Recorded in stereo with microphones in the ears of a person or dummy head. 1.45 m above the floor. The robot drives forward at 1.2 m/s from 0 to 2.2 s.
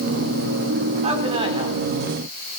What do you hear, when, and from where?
1.0 s a man speaking: 40° right (ahead or behind), 4 m; by 1.8 s 35° right (ahead or behind), 5 m